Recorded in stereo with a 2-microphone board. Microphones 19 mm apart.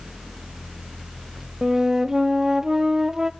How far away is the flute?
About 0.7 m.